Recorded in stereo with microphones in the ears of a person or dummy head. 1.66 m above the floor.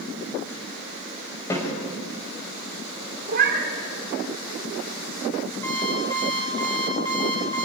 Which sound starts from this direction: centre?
An alarm clock, at 5.6 s.